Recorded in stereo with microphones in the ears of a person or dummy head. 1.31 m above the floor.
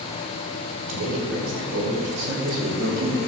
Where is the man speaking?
75° right (ahead or behind), 4.5 m; by 3.2 s 80° right, 3.5 m.